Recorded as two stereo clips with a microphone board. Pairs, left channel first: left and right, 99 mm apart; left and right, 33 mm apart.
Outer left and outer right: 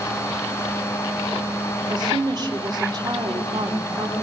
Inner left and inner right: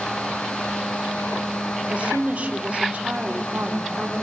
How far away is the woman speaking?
About 4 m.